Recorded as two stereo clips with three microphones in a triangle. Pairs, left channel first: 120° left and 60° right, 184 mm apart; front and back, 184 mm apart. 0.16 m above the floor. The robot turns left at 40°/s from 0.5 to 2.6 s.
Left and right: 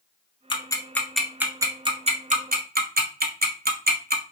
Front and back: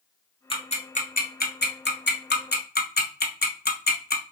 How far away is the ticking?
About 0.6 m.